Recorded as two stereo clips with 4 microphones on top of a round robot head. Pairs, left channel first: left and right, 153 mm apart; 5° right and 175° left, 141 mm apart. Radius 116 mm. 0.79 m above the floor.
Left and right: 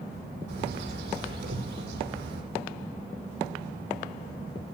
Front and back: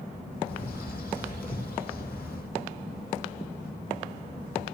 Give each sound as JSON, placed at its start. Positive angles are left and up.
{"t": 0.5, "sound": "a bird", "azimuth_deg": -90, "distance_m": 7.5}